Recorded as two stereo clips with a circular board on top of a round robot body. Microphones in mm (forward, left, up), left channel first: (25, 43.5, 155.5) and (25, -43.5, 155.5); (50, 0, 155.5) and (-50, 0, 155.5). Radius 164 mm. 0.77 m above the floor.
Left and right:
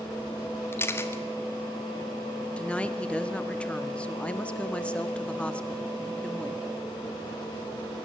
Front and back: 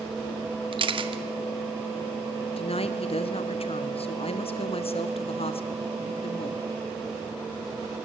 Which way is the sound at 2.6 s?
15° left.